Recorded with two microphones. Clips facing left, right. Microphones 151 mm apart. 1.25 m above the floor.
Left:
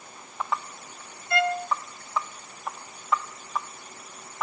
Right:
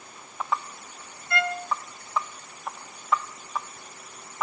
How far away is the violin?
About 1.0 m.